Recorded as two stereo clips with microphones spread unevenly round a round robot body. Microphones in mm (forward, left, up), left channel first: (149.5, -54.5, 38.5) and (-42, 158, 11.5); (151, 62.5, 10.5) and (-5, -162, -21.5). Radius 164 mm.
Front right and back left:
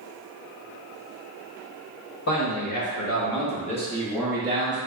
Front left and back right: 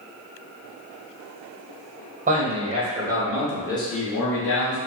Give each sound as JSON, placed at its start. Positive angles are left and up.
{"t": 2.3, "sound": "a man speaking", "azimuth_deg": -70, "distance_m": 1.7}